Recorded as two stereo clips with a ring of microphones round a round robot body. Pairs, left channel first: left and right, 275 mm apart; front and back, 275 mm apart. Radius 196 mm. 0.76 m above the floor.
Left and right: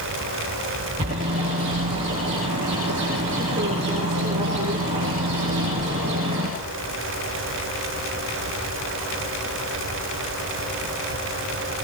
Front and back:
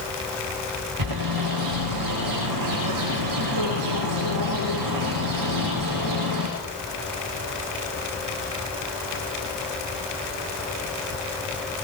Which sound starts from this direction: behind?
A bird, at 1.0 s.